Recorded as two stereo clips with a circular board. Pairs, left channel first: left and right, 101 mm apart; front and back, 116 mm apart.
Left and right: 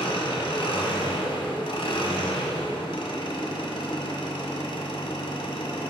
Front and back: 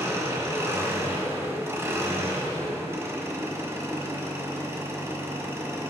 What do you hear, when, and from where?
0.0 s an engine running: 115° left, 1.6 m